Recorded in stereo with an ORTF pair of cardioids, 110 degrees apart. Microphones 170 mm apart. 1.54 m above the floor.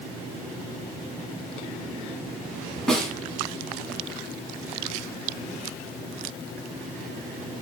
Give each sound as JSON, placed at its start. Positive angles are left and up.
{"t": 2.9, "sound": "a snare drum", "azimuth_deg": 5, "distance_m": 3.5}